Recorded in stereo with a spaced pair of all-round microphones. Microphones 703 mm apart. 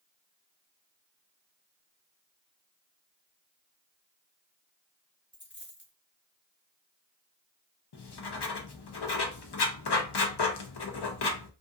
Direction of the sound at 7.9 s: 40° left (ahead or behind).